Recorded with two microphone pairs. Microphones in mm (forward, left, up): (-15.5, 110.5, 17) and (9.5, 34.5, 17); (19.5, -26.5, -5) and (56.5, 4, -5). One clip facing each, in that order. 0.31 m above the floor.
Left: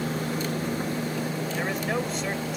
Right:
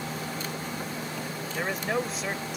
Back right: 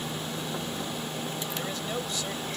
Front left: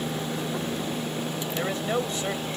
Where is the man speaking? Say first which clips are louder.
Right 1 dB, front left 9 dB; 20° left.